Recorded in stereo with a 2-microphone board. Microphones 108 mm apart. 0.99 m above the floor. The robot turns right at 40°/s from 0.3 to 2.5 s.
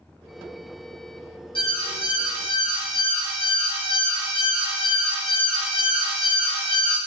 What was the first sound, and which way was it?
An alarm, 55° left.